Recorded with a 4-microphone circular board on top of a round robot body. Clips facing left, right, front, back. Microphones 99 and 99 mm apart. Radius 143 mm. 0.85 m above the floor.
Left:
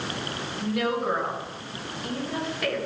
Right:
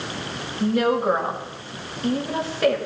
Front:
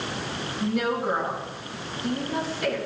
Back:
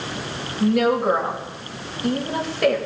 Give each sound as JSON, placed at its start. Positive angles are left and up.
{"t": 0.6, "sound": "a woman speaking", "azimuth_deg": -150, "distance_m": 4.5}